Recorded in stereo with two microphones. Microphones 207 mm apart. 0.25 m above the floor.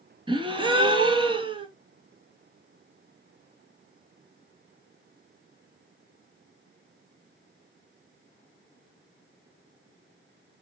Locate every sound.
0.3 s a gasp: 25° right (ahead or behind), 0.6 m